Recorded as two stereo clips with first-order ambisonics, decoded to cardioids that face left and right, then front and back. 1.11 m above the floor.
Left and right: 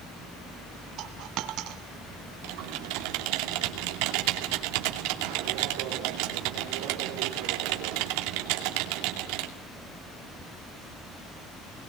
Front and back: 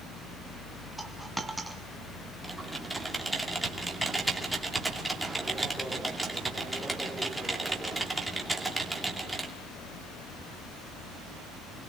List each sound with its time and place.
1.0 s a dropped coin: 100° right, 1.4 m
2.4 s typing on a keyboard: 95° right, 2.5 m